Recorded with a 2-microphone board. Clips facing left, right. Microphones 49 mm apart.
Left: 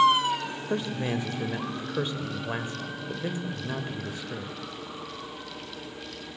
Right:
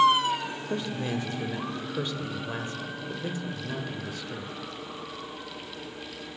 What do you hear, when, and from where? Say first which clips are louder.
0.7 s a man speaking: left 2 dB; 25° left (ahead or behind), 0.9 m